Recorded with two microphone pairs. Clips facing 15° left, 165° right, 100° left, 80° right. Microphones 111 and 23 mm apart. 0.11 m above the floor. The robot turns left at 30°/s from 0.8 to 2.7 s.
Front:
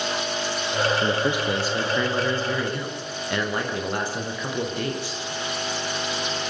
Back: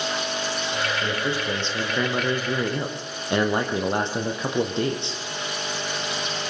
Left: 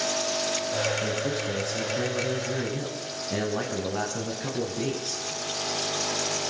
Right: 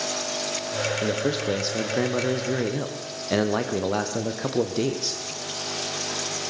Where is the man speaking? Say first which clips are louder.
Front 3 dB, right 3 dB; 45° right, 3.5 m; by 5.2 s 95° right, 3.5 m.